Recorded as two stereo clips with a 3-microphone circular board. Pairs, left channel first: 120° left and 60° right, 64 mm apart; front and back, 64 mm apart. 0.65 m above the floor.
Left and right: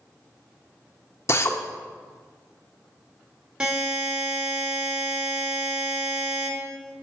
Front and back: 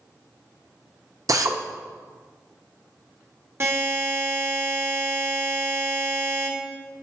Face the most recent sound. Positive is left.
turn(degrees=-135)